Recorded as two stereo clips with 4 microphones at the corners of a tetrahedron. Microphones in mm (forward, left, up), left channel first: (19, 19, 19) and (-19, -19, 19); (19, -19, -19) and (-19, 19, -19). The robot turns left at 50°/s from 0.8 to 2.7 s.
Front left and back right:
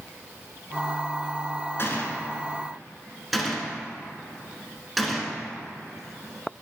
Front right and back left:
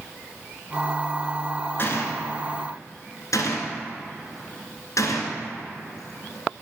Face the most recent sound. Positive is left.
turn(degrees=-50)